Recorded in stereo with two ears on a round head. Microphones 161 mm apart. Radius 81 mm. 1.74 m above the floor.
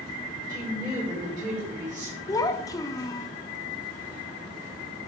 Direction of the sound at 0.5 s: 20° right (ahead or behind).